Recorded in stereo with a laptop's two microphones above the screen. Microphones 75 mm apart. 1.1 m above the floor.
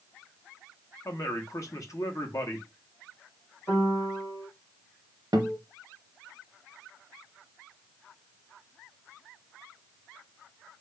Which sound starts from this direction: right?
A guitar, at 5.3 s.